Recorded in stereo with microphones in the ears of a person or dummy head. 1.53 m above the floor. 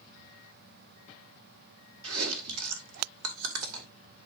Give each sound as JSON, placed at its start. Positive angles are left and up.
{"t": 2.0, "sound": "chewing", "side_deg": -80, "distance_m": 2.0}